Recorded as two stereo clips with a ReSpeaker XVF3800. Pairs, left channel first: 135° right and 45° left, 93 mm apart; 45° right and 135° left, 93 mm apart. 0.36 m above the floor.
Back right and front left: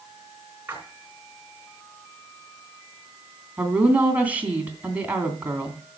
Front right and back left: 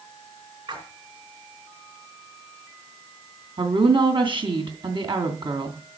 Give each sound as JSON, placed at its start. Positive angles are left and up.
{"t": 0.7, "sound": "a splash", "azimuth_deg": 115, "distance_m": 4.0}
{"t": 3.6, "sound": "a woman speaking", "azimuth_deg": 120, "distance_m": 2.5}